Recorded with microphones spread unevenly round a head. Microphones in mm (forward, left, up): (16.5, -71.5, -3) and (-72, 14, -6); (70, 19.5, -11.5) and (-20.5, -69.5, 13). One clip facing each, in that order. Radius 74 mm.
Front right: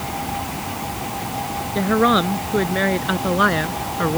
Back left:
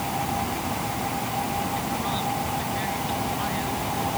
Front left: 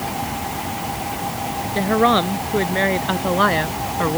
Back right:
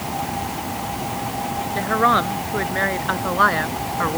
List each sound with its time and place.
1.8 s a woman speaking: 25° right